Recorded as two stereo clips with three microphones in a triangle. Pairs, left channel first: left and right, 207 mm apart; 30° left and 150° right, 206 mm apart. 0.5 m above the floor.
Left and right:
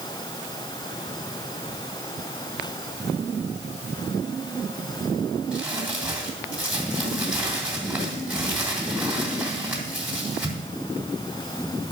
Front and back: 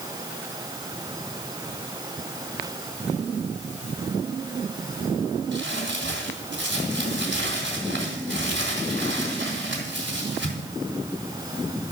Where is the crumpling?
175° right, 3 m.